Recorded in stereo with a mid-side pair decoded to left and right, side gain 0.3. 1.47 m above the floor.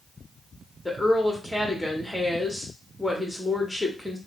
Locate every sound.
0.8 s a woman speaking: 5° left, 1.5 m